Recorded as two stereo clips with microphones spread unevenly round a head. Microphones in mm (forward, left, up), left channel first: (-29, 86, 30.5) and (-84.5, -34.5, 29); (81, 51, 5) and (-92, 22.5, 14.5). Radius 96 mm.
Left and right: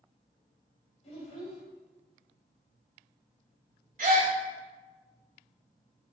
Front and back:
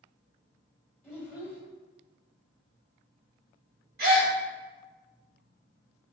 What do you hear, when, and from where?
1.0 s a child speaking: 105° left, 1.7 m
4.0 s a gasp: 130° right, 1.7 m